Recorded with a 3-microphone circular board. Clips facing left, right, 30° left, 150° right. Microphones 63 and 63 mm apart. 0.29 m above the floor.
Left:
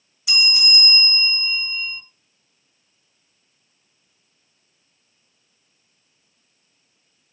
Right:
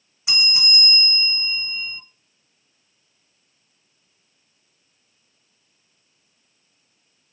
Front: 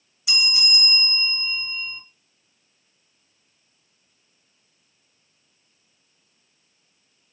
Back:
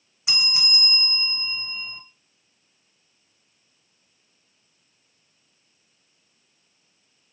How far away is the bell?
About 0.8 m.